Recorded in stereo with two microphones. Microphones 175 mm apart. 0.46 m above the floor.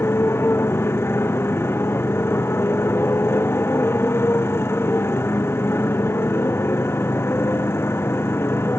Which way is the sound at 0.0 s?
15° left (ahead or behind).